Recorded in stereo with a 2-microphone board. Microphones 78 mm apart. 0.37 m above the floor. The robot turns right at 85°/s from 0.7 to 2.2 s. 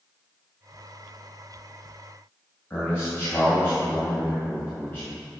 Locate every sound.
2.7 s a man speaking: 25° left (ahead or behind), 2.5 m